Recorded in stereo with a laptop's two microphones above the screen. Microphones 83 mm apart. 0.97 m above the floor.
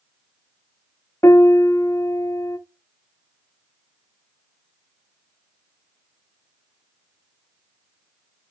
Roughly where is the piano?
Left.